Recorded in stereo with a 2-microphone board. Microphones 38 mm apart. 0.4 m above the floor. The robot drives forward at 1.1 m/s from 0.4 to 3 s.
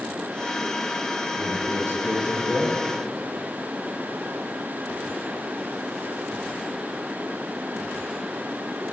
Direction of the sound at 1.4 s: 65° right (ahead or behind).